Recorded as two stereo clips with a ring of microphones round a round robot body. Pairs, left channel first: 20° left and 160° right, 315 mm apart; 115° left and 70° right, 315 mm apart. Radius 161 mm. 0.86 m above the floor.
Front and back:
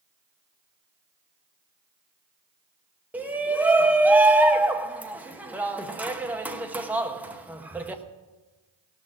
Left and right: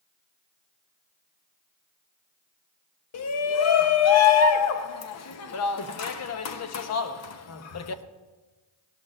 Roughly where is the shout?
Behind left.